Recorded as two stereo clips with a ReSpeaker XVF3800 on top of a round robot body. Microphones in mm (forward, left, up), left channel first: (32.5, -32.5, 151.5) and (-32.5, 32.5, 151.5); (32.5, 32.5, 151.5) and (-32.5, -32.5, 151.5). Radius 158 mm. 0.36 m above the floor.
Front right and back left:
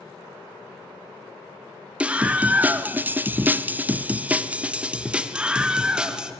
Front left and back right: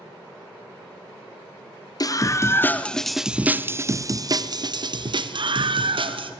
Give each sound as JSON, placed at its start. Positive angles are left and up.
{"t": 2.0, "sound": "a scream", "azimuth_deg": 60, "distance_m": 1.2}